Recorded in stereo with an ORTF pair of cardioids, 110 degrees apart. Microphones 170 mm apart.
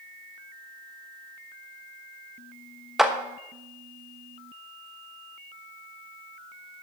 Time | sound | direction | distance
3.0 | a clap | straight ahead | 1.1 m